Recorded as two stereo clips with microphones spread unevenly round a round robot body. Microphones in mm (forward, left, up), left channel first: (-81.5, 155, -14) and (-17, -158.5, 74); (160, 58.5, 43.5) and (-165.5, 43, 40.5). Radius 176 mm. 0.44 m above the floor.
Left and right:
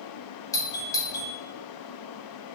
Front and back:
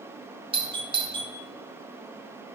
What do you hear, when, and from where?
0.5 s a doorbell: 125° left, 1.6 m